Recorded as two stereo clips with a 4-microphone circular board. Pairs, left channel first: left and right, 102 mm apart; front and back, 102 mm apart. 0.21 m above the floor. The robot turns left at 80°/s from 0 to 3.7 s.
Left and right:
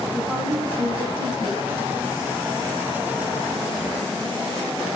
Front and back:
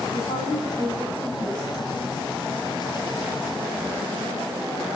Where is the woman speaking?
5° left, 9 m; by 1.6 s 115° right, 9 m.